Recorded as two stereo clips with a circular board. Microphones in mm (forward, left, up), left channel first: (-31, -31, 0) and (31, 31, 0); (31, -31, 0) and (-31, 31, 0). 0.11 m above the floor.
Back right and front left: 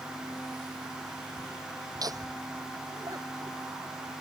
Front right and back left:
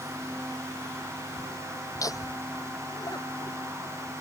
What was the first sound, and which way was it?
Laughter, 5° left.